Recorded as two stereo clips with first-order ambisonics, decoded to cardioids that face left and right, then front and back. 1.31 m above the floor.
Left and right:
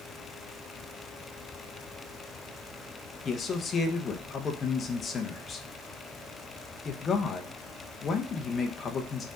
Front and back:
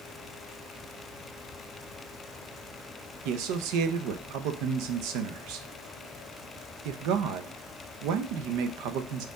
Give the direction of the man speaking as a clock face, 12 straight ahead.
7 o'clock.